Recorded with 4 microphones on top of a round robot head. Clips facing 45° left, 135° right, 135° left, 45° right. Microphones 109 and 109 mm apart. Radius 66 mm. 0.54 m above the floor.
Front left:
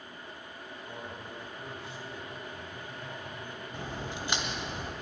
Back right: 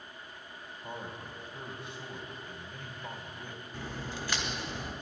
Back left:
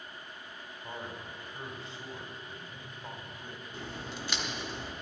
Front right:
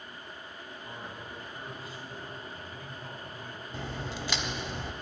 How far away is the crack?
About 1.3 m.